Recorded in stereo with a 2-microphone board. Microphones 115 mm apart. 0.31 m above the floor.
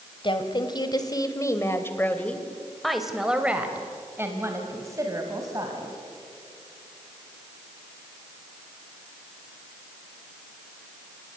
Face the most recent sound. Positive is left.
turn(degrees=-35)  # may be behind; listen again after turning